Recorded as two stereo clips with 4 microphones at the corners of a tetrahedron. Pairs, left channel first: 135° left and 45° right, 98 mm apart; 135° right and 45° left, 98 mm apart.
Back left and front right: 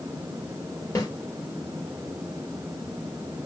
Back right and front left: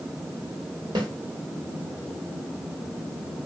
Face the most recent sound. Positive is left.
turn(degrees=80)